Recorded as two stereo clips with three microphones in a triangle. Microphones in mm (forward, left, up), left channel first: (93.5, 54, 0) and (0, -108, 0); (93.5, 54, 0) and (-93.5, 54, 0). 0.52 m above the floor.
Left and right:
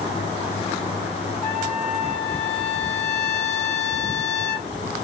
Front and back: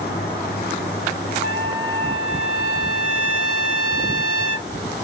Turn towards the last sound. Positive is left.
turn(degrees=-30)